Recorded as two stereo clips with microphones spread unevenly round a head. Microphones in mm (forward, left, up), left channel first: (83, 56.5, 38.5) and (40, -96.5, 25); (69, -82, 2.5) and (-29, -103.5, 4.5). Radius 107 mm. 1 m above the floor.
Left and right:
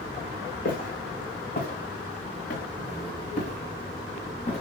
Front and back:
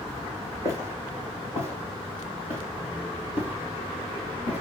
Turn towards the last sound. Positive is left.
turn(degrees=30)